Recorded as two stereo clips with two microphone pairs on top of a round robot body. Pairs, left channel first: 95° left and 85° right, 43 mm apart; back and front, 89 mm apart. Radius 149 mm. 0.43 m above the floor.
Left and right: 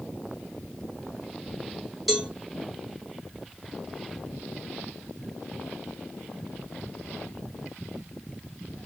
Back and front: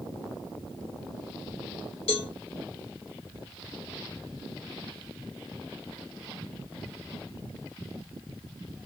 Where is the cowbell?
175° right, 0.7 m.